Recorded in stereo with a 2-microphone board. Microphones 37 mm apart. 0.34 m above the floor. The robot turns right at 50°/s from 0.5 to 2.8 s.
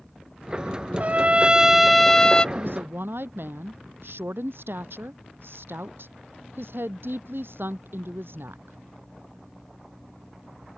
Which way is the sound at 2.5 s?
60° right (ahead or behind).